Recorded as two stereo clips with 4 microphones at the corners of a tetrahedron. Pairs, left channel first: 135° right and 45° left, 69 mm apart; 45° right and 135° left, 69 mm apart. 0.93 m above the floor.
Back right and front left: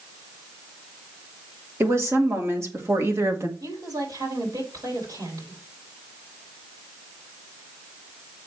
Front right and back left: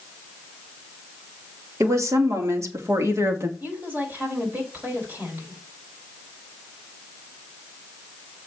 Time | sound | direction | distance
1.8 | a woman speaking | 95° left | 2.5 m
3.6 | a woman speaking | 70° left | 5 m